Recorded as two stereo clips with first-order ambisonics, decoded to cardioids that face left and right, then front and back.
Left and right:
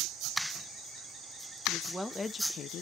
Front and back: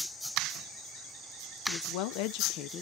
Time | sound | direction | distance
1.7 | a woman speaking | 5° right | 0.8 m